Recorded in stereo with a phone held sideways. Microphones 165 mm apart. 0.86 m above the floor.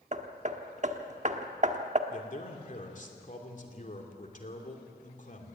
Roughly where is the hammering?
Right.